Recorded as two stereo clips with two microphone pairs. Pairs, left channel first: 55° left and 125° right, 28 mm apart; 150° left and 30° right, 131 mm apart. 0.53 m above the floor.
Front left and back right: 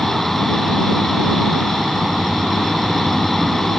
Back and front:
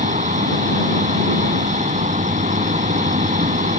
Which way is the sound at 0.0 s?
30° right.